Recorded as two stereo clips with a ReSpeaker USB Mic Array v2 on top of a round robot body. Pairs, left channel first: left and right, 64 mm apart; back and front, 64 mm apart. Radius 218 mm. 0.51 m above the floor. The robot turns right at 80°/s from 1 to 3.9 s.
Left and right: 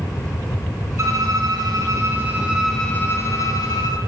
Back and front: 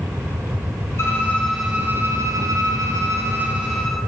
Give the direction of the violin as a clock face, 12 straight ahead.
4 o'clock.